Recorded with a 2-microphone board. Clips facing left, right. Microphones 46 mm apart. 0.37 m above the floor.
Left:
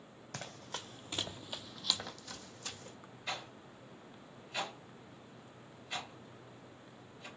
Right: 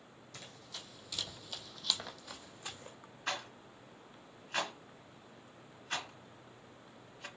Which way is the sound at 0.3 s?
70° left (ahead or behind).